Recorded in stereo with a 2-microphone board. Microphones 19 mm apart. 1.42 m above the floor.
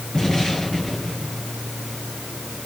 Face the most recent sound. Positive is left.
turn(degrees=40)  # may be behind; listen again after turning